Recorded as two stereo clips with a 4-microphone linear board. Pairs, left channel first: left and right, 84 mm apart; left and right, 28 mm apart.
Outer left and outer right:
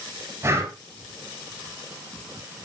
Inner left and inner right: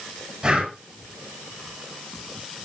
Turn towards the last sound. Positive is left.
turn(degrees=-30)  # may be behind; listen again after turning